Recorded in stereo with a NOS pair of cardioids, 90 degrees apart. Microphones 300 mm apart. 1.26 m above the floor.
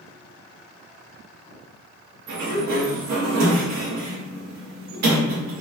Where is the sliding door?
60° right, 1.7 m.